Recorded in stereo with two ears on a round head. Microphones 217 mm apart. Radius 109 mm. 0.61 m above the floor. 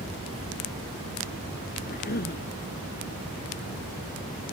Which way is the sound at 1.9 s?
40° left (ahead or behind).